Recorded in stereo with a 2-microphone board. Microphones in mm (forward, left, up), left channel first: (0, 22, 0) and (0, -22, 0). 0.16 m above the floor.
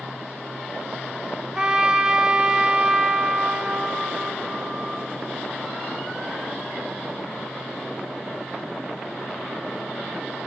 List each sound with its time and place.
1.6 s a trumpet: 20° right (ahead or behind), 0.6 m